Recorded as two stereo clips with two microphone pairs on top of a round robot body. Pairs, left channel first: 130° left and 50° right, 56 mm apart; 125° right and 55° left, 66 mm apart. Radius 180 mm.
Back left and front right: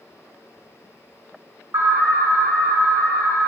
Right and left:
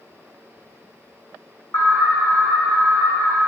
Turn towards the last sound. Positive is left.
turn(degrees=-70)